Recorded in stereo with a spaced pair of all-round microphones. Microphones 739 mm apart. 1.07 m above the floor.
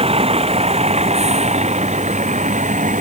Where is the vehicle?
10° right (ahead or behind).